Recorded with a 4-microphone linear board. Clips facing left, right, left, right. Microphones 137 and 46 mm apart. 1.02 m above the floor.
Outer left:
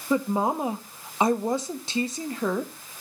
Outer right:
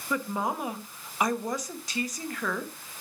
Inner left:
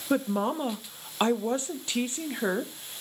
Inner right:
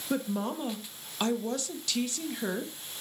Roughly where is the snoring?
No snoring in this recording.